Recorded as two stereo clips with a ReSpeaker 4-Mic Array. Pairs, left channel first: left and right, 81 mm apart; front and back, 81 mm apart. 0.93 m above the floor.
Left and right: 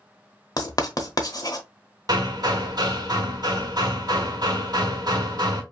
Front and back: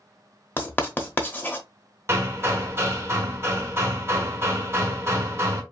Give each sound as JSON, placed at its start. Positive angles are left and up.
{"t": 0.6, "sound": "writing", "azimuth_deg": 65, "distance_m": 1.0}
{"t": 2.1, "sound": "hammering", "azimuth_deg": -125, "distance_m": 1.3}